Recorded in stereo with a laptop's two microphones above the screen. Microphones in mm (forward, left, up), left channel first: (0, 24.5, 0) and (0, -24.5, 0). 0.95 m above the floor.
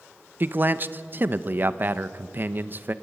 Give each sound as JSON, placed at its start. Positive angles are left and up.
{"t": 0.4, "sound": "a man speaking", "side_deg": -40, "distance_m": 0.8}